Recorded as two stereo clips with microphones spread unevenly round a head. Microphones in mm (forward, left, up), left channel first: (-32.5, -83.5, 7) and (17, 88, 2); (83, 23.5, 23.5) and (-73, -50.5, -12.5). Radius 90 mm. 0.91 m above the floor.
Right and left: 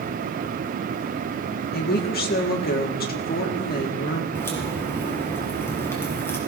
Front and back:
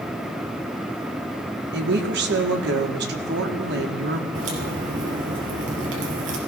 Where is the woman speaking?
145° right, 1.9 m.